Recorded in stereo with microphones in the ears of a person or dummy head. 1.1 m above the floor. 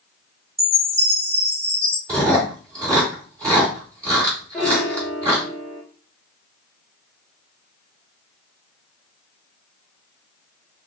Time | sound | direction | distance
0.6 | a chime | 15° right (ahead or behind) | 1.1 m
2.1 | chewing | 20° right (ahead or behind) | 2.5 m
4.5 | a piano | centre (ahead or behind) | 1.3 m